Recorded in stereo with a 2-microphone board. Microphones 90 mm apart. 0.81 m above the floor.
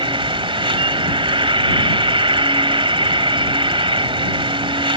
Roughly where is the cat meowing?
I don't hear a cat meowing.